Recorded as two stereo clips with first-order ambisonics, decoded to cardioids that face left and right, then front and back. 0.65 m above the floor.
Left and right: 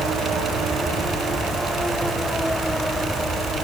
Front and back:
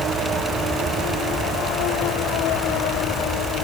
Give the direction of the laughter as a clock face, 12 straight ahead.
I don't hear laughter.